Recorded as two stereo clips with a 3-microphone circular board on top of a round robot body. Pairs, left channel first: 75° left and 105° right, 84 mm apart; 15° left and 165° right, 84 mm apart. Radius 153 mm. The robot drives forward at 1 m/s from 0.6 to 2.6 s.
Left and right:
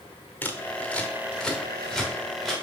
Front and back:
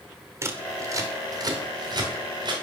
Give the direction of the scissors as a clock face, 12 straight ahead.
7 o'clock.